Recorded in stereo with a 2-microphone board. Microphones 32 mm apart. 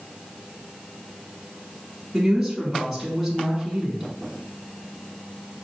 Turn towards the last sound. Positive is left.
turn(degrees=0)  # may be behind; listen again after turning